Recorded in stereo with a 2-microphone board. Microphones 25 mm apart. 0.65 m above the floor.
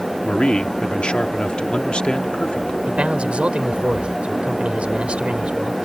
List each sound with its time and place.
0.2 s a man speaking: 45° left (ahead or behind)
2.9 s a man speaking: 55° right (ahead or behind)